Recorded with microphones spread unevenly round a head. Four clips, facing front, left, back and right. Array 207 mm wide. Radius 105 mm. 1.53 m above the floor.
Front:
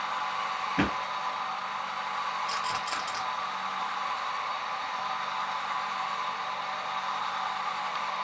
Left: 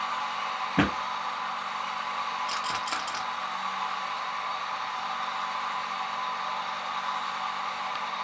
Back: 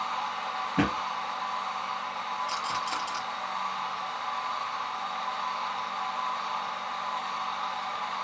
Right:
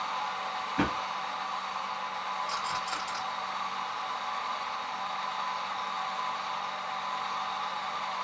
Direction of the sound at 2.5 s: 115° left.